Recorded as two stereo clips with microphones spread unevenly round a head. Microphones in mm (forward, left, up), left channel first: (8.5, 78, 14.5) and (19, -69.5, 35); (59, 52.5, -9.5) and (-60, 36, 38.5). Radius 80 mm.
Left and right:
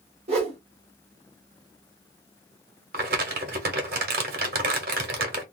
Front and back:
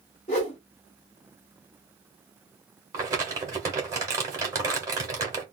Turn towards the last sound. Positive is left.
turn(degrees=-115)